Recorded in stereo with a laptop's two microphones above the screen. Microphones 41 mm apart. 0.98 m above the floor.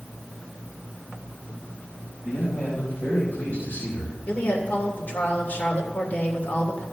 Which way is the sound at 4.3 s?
40° left (ahead or behind).